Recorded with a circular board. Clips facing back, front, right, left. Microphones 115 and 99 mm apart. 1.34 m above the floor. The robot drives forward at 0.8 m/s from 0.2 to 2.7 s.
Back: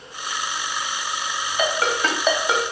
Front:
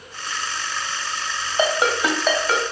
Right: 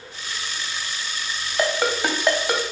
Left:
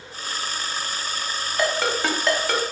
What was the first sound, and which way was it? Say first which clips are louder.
A ringtone: front 3 dB, right 1 dB; 20° right.